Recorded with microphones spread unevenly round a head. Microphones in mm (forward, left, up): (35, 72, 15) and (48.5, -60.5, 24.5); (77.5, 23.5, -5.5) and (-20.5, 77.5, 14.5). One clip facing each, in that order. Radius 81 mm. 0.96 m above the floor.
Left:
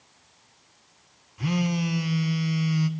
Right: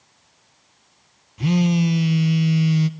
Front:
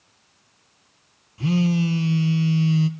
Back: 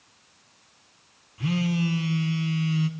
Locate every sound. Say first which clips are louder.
1.4 s a phone buzzing: right 7 dB, front 5 dB; 30° right, 0.7 m